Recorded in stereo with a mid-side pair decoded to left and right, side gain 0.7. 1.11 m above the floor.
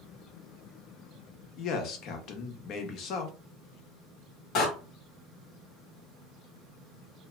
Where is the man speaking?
55° left, 1.1 m.